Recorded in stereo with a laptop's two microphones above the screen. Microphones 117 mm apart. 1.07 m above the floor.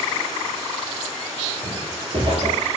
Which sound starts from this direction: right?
Footsteps, at 1.6 s.